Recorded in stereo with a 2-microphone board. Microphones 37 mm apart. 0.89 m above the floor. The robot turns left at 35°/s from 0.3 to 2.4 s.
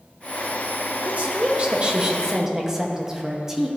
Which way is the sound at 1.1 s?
110° right.